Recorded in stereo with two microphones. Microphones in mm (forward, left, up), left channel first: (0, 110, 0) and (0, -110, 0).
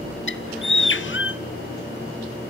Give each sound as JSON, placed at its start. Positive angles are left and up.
{"t": 0.3, "sound": "a bird", "side_deg": 60, "distance_m": 0.6}